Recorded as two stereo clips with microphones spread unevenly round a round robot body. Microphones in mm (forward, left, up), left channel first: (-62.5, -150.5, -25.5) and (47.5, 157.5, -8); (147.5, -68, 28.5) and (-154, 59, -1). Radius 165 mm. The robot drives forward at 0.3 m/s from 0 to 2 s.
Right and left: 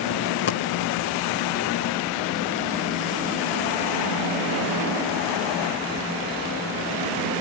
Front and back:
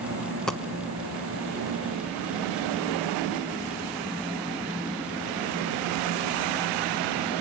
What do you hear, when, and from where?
0.5 s a dropped coin: 100° right, 0.9 m; by 0.7 s 105° right, 0.9 m